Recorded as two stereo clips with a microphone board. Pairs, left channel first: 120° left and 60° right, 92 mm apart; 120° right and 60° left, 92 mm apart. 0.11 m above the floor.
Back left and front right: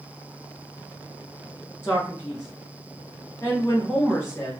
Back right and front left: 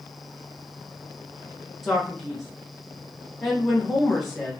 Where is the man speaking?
155° left, 1.7 m.